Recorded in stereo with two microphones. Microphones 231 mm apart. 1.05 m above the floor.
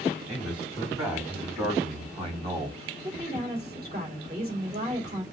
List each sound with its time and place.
0.3 s a man speaking: 30° right (ahead or behind), 3 m; by 2.8 s 20° right (ahead or behind), 1.7 m
3.0 s a woman speaking: 40° right (ahead or behind), 2.5 m